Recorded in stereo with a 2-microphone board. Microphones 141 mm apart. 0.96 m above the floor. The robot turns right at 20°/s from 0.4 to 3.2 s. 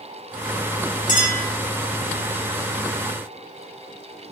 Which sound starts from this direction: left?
A clink, at 1.1 s.